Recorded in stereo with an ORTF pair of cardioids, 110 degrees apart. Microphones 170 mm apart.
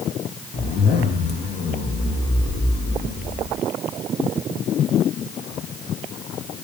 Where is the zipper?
40° left, 1.0 m.